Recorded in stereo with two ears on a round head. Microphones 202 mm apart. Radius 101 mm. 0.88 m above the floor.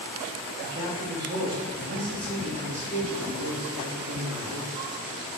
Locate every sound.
0.6 s a man speaking: 50° right (ahead or behind), 1.3 m